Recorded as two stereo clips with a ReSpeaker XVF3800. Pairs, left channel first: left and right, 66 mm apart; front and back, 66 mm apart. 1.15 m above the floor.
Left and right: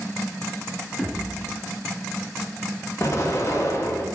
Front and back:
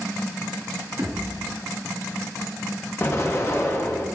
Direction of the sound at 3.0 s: 50° left.